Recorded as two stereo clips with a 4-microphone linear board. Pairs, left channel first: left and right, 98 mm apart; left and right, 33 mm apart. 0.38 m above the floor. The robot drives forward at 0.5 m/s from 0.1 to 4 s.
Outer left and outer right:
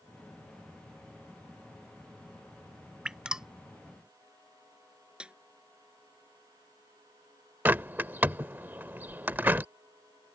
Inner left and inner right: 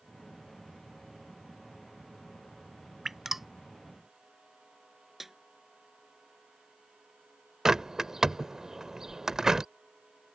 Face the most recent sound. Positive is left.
turn(degrees=-20)  # may be behind; listen again after turning